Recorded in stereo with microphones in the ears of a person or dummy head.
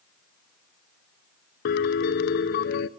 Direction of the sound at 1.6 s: 55° left (ahead or behind).